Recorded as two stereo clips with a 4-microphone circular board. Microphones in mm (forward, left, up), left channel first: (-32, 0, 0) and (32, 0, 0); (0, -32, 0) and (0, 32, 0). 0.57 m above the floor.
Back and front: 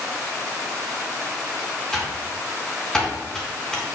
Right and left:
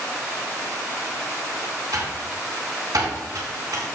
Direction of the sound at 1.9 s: 95° left.